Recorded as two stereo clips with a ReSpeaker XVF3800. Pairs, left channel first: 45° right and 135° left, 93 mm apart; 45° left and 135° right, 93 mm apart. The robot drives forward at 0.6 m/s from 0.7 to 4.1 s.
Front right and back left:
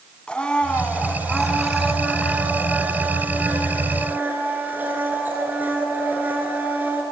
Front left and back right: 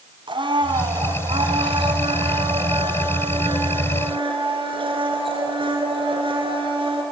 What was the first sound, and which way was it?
A blender, 125° right.